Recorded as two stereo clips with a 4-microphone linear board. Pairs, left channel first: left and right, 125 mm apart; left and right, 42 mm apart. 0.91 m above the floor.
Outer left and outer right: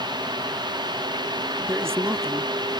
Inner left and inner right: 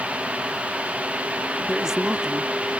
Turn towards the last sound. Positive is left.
turn(degrees=-20)  # may be behind; listen again after turning